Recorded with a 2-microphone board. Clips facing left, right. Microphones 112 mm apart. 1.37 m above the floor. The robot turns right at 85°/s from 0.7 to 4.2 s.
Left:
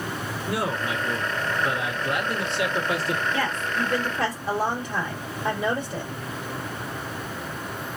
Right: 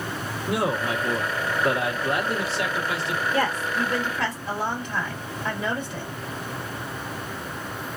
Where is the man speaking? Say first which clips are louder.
Right 3 dB; 160° right, 1.4 m; by 3.2 s 55° left, 1.4 m.